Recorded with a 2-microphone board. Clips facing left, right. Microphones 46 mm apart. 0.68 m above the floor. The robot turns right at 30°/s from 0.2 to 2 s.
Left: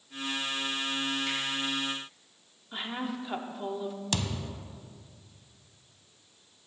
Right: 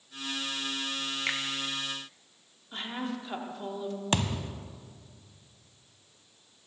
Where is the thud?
35° right (ahead or behind), 0.6 m.